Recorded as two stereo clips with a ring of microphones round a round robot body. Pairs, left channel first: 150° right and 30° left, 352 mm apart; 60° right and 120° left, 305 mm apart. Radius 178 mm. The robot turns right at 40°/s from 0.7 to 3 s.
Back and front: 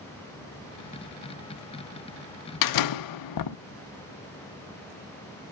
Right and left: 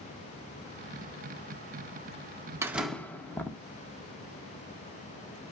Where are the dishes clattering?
No dishes clattering in this recording.